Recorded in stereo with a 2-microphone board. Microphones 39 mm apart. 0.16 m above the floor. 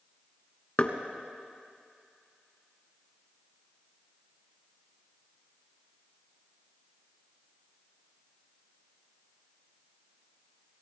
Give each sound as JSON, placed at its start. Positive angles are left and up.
{"t": 0.8, "sound": "knocking", "side_deg": 40, "distance_m": 1.0}